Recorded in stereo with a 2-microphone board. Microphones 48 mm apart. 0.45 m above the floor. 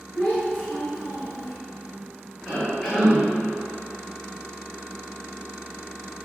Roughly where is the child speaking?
Left.